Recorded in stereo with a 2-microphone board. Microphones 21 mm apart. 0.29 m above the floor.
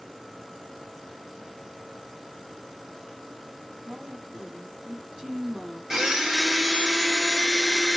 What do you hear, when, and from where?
3.9 s a woman speaking: 50° right (ahead or behind), 2 m
5.9 s a blender: 35° right (ahead or behind), 1.1 m